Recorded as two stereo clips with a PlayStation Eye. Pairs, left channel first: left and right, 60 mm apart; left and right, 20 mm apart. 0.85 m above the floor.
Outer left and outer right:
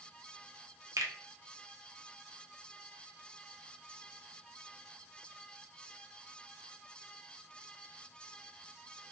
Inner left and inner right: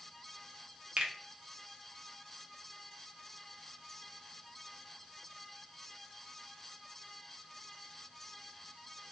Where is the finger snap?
70° right (ahead or behind), 0.8 m.